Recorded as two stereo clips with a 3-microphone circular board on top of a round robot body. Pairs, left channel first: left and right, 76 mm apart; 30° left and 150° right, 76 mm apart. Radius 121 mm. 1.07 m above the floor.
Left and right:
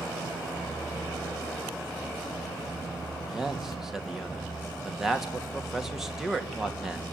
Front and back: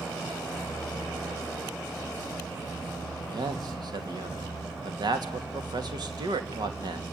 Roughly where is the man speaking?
Behind.